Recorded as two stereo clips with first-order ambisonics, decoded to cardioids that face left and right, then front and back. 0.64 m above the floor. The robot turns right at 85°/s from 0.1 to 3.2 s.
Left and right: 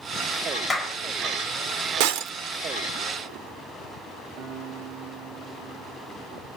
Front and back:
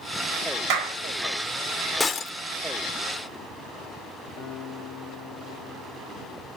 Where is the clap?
165° left, 1.9 m; by 1.0 s 170° right, 1.9 m.